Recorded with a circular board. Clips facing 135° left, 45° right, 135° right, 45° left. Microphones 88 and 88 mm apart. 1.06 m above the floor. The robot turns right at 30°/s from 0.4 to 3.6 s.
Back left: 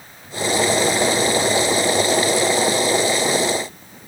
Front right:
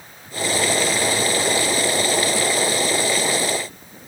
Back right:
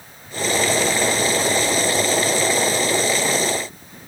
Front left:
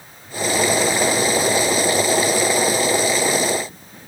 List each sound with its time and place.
Only background noise.